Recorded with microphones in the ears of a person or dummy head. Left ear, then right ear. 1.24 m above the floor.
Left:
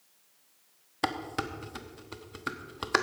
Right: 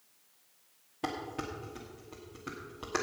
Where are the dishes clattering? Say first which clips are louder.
Left 5 dB; 55° left (ahead or behind), 1.1 m.